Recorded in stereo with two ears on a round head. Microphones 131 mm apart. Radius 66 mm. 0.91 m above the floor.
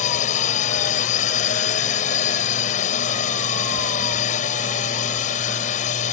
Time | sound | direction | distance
0.0 | a drone | 50° left (ahead or behind) | ?